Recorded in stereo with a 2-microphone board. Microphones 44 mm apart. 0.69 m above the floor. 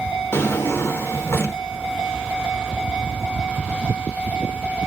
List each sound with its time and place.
0.3 s a drawer: 65° left (ahead or behind), 0.6 m